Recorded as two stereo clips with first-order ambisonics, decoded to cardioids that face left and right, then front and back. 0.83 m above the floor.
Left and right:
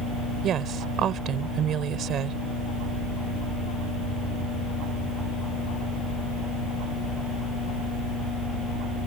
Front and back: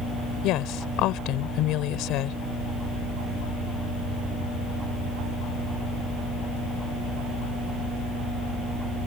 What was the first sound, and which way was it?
A woman speaking, 35° right.